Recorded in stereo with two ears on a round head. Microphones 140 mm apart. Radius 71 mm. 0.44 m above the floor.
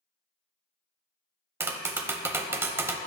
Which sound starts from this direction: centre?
Tapping, at 1.6 s.